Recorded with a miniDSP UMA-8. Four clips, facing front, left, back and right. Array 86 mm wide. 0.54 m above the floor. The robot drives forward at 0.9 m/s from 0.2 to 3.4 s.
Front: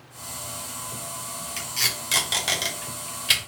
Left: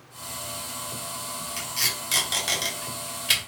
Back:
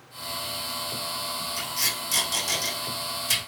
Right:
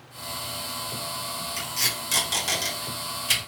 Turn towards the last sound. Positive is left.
turn(degrees=15)